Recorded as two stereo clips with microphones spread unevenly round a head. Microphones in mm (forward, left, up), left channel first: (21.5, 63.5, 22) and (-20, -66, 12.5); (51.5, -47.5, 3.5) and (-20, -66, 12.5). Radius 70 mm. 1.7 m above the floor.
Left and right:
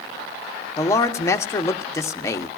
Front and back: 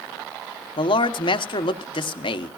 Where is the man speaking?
Straight ahead, 1.1 m.